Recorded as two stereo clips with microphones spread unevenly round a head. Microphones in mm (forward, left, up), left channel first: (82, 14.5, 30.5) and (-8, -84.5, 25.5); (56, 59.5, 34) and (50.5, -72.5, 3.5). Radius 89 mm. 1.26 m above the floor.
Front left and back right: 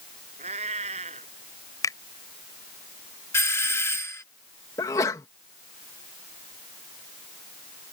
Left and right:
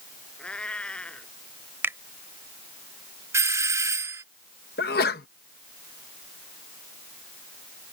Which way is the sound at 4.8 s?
120° left.